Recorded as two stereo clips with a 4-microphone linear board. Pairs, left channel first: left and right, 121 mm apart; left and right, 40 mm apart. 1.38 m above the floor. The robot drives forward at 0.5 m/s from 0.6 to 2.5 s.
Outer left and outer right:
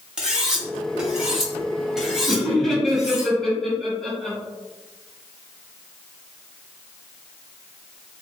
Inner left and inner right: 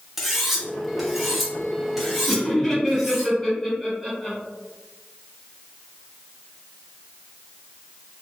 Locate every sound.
0.2 s cutlery clinking: 5° right (ahead or behind), 0.9 m
2.3 s laughter: 5° left (ahead or behind), 1.8 m